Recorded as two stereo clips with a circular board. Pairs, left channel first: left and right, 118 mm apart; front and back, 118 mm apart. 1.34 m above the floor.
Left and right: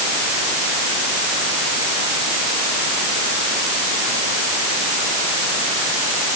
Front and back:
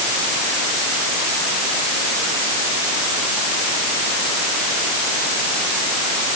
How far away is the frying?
I don't hear frying.